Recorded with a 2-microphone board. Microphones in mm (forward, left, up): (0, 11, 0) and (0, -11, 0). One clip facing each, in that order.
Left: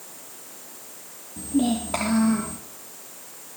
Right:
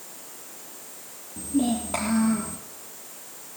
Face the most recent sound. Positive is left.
turn(degrees=10)  # may be behind; listen again after turning